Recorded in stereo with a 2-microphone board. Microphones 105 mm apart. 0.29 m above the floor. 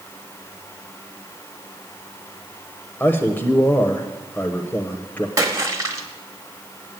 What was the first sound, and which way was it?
A man speaking, 20° left (ahead or behind).